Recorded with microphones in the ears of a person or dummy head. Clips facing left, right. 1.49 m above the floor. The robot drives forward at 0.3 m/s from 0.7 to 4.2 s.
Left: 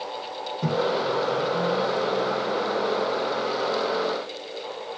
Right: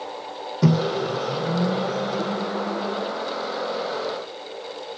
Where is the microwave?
70° right (ahead or behind), 0.5 m; by 3.1 s 30° right (ahead or behind), 0.9 m.